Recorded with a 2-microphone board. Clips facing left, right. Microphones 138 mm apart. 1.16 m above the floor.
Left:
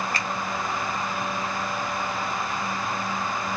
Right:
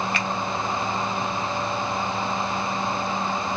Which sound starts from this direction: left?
A finger snap, at 0.1 s.